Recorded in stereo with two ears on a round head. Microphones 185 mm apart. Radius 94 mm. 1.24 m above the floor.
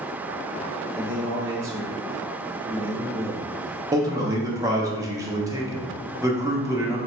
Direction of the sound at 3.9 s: 15° right (ahead or behind).